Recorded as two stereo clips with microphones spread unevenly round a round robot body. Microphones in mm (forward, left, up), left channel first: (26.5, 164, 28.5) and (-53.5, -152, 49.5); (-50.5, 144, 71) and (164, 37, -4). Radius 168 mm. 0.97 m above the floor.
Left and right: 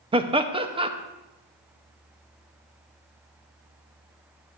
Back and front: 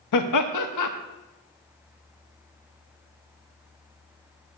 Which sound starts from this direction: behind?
Laughter, at 0.1 s.